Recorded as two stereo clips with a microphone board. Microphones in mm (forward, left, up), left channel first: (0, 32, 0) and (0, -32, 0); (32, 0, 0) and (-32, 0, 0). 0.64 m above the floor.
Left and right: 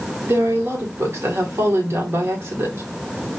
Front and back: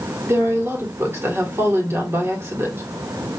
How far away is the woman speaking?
About 1.9 m.